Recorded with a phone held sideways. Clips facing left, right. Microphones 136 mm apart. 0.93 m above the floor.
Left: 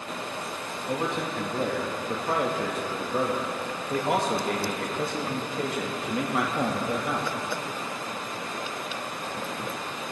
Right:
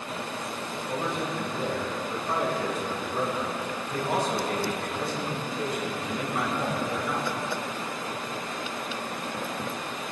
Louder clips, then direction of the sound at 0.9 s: Left 2 dB; 60° left (ahead or behind).